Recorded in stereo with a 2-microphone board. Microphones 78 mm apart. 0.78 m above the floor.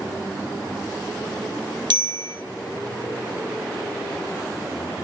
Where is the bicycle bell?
75° right (ahead or behind), 3.5 m.